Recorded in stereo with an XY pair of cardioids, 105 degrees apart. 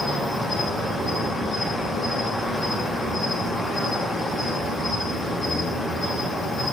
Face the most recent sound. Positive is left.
turn(degrees=0)